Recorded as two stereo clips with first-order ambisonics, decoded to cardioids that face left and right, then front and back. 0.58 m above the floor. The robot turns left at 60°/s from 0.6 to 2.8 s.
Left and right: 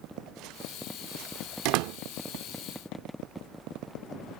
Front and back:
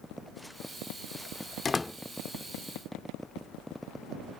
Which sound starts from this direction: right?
A door slam, at 1.6 s.